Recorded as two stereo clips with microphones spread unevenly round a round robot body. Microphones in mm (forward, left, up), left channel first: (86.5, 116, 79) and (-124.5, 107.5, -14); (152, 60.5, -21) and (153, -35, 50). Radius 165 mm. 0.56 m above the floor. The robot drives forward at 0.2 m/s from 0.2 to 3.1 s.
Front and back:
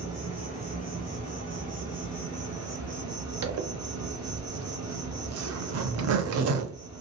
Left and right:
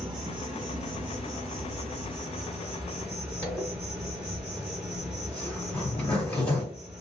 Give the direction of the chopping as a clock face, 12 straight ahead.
No chopping in this recording.